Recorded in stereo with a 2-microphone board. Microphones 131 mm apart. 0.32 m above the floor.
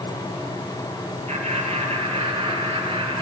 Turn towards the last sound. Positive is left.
turn(degrees=-45)  # may be behind; listen again after turning